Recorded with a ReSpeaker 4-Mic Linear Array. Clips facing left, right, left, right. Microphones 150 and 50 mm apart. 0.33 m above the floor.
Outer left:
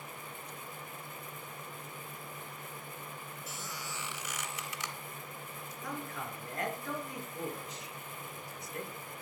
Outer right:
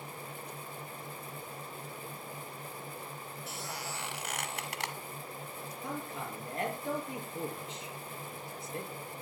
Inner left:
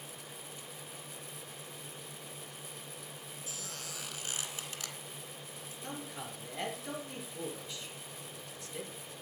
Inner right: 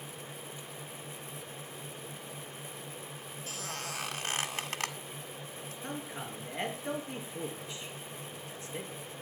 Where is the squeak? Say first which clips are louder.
Outer right 4 dB, inner right 7 dB; 65° right (ahead or behind), 1.7 m.